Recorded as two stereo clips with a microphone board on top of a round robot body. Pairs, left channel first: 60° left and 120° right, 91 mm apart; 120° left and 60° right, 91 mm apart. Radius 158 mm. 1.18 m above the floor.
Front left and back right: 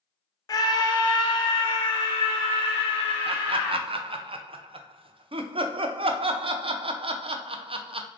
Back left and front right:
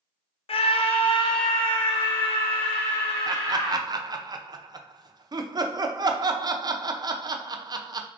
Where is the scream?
110° left, 0.5 m; by 3.8 s 90° left, 2.5 m.